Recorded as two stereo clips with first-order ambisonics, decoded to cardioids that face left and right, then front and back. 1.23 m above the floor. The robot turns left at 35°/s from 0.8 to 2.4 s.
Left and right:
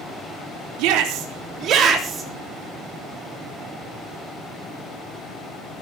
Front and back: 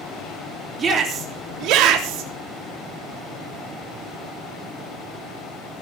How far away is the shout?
About 3.5 m.